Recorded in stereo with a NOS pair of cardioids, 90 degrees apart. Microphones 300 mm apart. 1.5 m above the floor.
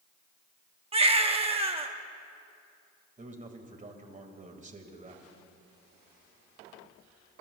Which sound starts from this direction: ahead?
A baby crying, at 0.9 s.